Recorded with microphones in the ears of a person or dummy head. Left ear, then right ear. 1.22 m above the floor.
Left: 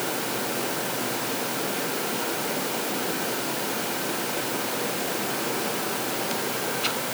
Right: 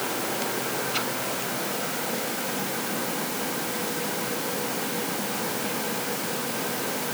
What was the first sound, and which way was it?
Only background noise.